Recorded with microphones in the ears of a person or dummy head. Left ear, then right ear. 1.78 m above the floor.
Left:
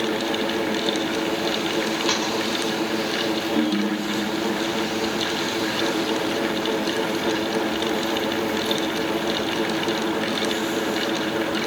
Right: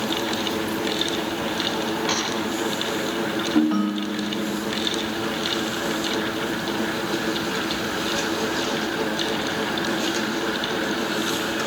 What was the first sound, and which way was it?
Tapping, 15° left (ahead or behind).